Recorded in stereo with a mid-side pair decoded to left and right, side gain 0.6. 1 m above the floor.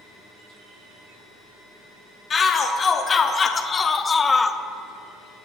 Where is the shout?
35° left, 2.5 m; by 4.6 s 25° left, 0.8 m.